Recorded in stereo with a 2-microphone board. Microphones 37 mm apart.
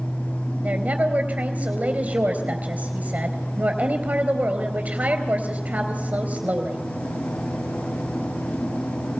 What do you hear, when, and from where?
0.6 s a woman speaking: 40° right (ahead or behind), 4 m